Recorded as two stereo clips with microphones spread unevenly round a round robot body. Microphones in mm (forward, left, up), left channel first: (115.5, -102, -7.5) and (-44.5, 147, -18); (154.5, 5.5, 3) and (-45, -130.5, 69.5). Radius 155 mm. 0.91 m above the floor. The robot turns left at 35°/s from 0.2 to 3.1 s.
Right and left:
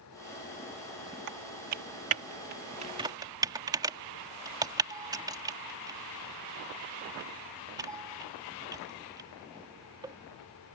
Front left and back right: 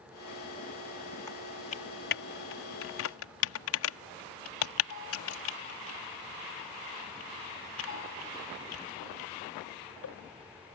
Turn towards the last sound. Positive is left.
turn(degrees=45)